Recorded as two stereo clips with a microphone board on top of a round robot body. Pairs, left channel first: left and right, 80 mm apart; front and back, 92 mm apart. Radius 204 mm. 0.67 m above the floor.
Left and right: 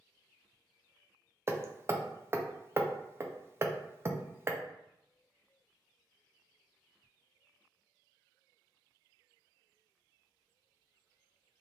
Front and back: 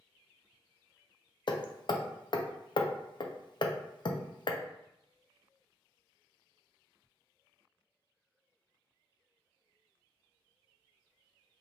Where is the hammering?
35° right, 0.5 m.